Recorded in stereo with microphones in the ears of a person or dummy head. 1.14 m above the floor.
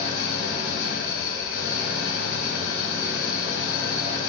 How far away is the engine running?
About 1.8 m.